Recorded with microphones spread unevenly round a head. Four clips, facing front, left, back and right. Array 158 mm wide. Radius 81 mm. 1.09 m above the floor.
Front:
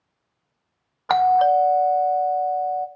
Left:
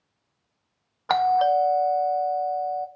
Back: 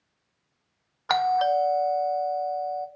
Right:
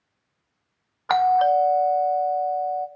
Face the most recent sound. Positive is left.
turn(degrees=35)